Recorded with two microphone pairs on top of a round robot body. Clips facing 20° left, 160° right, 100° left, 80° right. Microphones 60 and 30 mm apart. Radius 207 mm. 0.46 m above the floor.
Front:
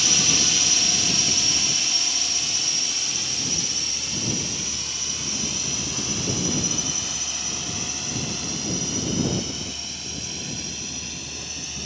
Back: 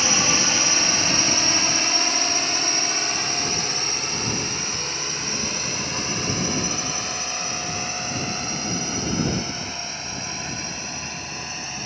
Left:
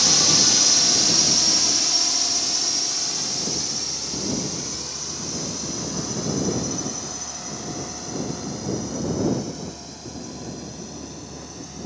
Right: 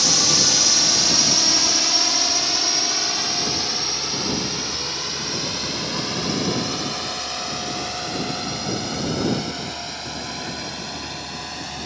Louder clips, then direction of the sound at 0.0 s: Back 4 dB, right 1 dB; 165° right.